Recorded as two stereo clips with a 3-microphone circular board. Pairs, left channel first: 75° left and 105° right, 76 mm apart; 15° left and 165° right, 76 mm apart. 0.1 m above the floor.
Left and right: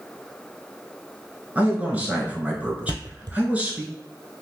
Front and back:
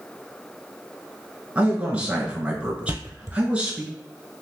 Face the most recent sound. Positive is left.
turn(degrees=-105)